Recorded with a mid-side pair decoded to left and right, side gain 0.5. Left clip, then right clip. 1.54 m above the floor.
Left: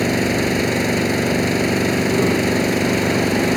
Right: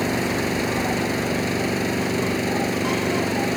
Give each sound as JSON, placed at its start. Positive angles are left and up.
{"t": 0.0, "sound": "an engine running", "azimuth_deg": 30}